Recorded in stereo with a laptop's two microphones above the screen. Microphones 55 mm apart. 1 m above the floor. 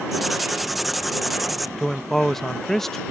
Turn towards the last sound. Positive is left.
turn(degrees=5)  # may be behind; listen again after turning